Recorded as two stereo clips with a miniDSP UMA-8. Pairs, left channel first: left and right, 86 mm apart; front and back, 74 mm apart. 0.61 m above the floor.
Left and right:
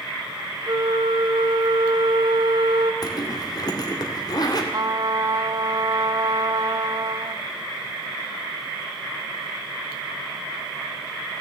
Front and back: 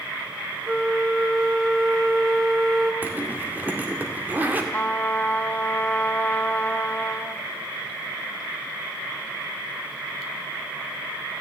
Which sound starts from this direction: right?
A flute, at 0.7 s.